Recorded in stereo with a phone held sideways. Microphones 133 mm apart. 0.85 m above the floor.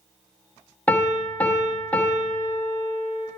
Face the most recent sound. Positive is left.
turn(degrees=10)  # may be behind; listen again after turning